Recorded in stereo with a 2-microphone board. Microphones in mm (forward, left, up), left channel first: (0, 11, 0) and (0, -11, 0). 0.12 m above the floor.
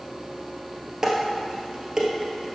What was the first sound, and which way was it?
Dishes clattering, 25° right (ahead or behind).